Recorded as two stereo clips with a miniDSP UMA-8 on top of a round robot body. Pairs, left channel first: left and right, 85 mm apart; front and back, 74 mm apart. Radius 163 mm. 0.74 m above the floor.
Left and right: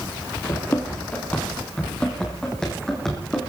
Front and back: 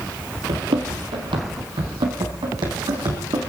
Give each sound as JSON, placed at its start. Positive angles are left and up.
{"t": 0.5, "sound": "running footsteps", "azimuth_deg": 150, "distance_m": 1.3}